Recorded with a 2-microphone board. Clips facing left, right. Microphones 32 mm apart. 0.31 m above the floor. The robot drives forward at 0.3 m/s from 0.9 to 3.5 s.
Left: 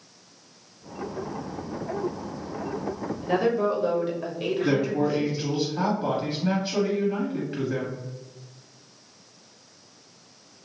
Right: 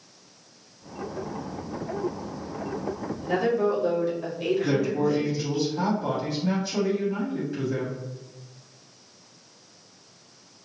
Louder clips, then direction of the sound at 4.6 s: Left 3 dB; 35° left (ahead or behind).